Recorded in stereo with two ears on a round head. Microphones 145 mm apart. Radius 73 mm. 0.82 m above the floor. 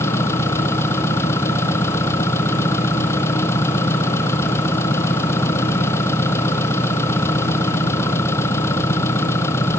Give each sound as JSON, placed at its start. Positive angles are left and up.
{"t": 0.0, "sound": "an engine running", "side_deg": 15}